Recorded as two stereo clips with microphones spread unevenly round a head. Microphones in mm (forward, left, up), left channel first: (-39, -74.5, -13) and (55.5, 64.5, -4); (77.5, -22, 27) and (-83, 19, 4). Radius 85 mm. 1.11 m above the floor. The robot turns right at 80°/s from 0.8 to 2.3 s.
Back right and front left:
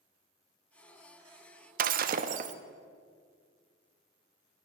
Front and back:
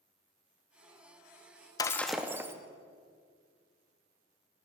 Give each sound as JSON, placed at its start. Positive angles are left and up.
{"t": 1.8, "sound": "breaking glass", "azimuth_deg": 45, "distance_m": 0.6}